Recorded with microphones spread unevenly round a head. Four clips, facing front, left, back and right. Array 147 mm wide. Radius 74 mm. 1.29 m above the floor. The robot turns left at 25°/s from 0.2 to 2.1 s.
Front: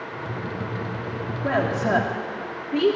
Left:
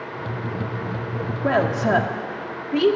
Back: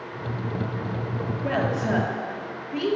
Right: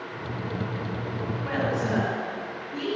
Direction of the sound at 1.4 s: 75° left.